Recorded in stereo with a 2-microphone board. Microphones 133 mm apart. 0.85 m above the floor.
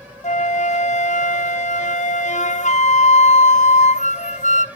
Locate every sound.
0.2 s a flute: 70° left (ahead or behind), 0.6 m